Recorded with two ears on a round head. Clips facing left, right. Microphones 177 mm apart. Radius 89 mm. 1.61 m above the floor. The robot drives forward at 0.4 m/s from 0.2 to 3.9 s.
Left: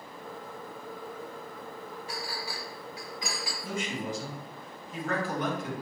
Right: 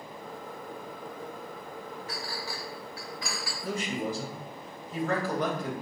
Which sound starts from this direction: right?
A man speaking, at 3.6 s.